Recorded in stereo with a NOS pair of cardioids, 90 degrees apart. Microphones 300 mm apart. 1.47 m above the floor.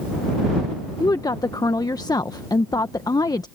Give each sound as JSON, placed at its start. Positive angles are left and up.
{"t": 1.0, "sound": "a woman speaking", "azimuth_deg": 10}